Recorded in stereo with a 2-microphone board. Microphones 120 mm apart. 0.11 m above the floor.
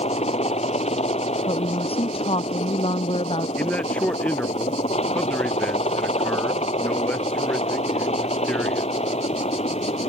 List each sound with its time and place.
0.0 s a helicopter: 65° left (ahead or behind)
1.5 s a woman speaking: 55° left (ahead or behind)
3.6 s a man speaking: 10° left (ahead or behind)